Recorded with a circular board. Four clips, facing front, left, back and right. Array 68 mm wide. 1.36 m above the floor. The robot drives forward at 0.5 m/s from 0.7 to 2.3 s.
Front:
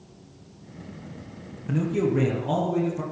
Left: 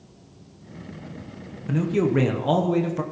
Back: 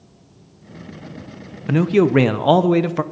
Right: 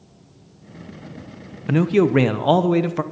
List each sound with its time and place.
1.7 s a man speaking: 130° right, 0.6 m; by 3.0 s 150° right, 0.9 m